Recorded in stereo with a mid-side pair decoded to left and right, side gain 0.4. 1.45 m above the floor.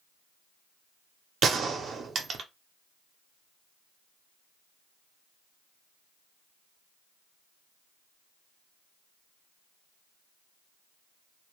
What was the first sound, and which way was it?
A gunshot, 60° right.